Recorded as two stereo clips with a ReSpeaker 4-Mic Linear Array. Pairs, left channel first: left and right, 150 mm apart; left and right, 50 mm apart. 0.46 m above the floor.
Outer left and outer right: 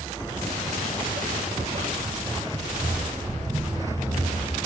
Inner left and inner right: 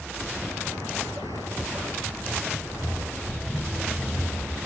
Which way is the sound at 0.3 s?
70° right (ahead or behind).